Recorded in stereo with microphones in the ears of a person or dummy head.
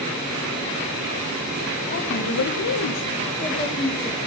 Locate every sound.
1.9 s a woman speaking: 40° left (ahead or behind), 1.4 m; by 4.2 s 15° left (ahead or behind), 1.7 m